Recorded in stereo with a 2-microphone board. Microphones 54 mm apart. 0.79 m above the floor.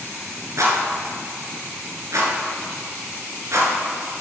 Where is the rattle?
70° right (ahead or behind), 1.8 m.